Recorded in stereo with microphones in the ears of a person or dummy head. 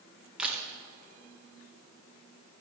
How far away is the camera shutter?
About 1.6 m.